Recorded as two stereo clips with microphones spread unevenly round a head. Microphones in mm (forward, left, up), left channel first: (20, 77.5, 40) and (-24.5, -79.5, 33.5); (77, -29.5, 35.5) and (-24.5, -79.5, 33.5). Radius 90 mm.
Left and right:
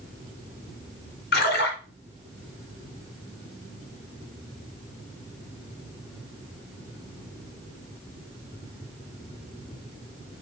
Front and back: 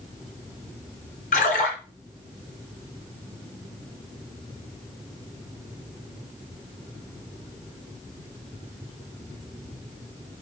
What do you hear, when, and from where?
1.3 s a splash: 45° left, 3 m